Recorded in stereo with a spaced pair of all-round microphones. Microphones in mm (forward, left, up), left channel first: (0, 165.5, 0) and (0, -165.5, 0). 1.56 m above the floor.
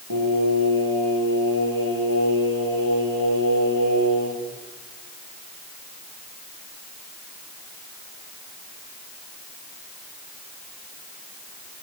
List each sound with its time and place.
0.1 s singing: 75° right (ahead or behind), 9 m